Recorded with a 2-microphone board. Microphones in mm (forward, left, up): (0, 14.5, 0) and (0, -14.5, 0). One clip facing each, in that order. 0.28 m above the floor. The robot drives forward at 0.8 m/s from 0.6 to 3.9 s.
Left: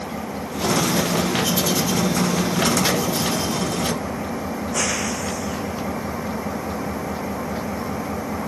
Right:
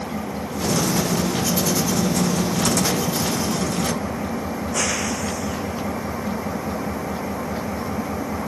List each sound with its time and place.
0.0 s an engine running: centre (ahead or behind)